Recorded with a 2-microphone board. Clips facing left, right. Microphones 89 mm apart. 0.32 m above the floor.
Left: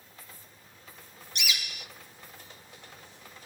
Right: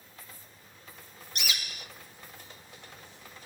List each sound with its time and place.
1.4 s a bird: 45° right (ahead or behind), 0.7 m